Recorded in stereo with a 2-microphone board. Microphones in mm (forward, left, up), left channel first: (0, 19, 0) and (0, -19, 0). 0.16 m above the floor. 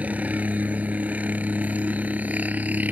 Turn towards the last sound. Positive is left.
turn(degrees=-50)  # may be behind; listen again after turning